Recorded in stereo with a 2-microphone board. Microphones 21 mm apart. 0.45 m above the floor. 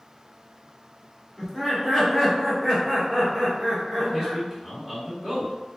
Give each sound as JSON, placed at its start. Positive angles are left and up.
{"t": 1.4, "sound": "laughter", "side_deg": 15, "distance_m": 1.3}
{"t": 4.0, "sound": "a man speaking", "side_deg": -25, "distance_m": 1.0}